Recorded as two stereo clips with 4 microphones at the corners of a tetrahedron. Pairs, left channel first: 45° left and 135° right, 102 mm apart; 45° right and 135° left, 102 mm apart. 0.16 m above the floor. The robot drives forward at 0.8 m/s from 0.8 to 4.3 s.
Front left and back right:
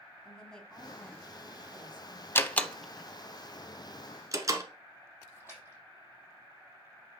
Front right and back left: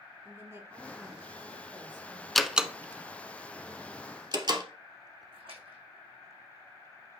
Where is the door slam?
40° left, 0.7 m; by 4.6 s 170° left, 1.5 m.